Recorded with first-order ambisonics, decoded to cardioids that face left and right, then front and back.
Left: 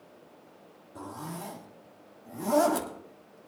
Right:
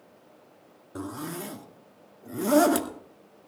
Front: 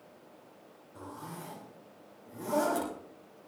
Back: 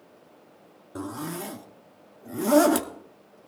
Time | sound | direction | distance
0.9 | a zipper | 145° right | 1.9 m